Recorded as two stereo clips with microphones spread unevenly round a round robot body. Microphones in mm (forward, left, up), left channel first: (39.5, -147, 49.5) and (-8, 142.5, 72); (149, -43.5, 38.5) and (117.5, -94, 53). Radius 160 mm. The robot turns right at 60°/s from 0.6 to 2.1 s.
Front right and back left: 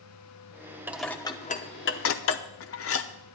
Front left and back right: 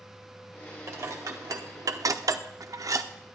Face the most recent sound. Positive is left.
turn(degrees=-100)